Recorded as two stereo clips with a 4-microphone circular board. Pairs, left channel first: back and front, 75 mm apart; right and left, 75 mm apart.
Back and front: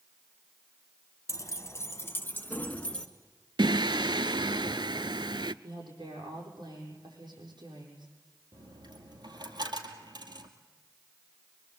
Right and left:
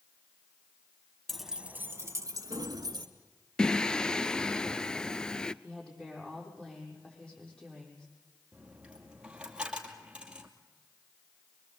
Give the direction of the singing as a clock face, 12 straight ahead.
12 o'clock.